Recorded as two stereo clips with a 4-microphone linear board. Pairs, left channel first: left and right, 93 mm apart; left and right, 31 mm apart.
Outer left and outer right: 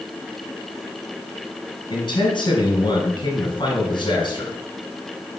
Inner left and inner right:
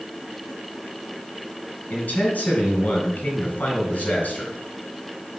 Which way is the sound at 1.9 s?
55° left (ahead or behind).